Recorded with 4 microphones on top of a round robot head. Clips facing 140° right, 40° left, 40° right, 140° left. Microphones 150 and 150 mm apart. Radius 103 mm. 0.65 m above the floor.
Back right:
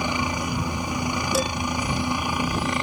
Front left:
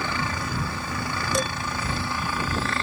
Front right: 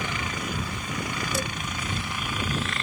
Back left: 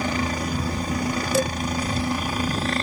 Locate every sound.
0.0 s a helicopter: 155° left
1.3 s dishes clattering: 130° left